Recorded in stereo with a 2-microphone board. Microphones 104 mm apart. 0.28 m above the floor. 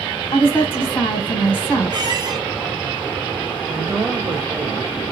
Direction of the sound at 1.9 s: 45° right (ahead or behind).